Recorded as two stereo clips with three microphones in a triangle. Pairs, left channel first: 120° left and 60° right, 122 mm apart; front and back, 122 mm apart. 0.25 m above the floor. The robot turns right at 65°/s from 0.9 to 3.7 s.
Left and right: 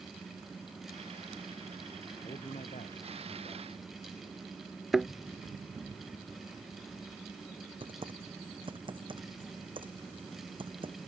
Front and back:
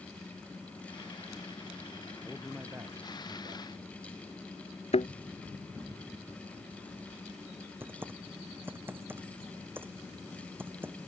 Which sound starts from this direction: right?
Typing on a keyboard, at 7.8 s.